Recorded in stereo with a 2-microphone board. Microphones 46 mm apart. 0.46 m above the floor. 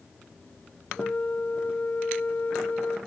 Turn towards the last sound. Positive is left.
turn(degrees=35)  # may be behind; listen again after turning